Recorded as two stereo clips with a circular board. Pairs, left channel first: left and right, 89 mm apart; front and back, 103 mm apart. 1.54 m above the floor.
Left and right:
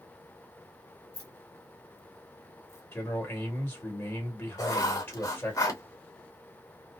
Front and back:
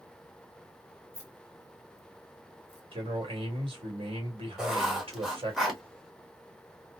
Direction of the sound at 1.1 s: 60° right.